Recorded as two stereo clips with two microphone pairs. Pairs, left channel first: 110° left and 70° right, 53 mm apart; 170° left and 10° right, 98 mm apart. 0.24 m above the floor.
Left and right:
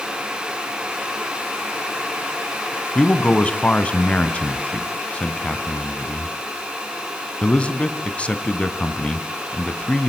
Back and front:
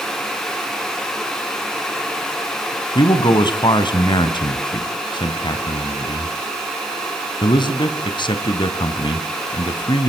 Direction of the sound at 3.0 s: 170° left.